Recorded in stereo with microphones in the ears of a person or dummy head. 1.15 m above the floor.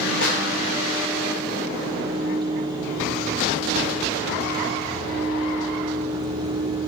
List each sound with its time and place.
0.2 s a snare drum: 60° left (ahead or behind), 1.3 m